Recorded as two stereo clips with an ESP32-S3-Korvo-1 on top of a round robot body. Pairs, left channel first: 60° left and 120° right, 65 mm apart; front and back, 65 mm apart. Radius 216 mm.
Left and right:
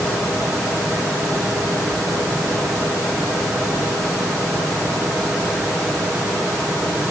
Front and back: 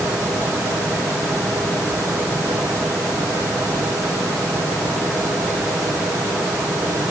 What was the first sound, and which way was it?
Only background noise.